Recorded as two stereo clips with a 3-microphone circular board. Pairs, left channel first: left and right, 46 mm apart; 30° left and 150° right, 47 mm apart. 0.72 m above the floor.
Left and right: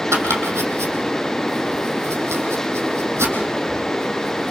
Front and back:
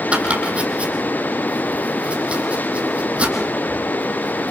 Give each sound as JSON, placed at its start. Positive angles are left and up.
{"t": 0.1, "sound": "chopping", "azimuth_deg": -85, "distance_m": 4.0}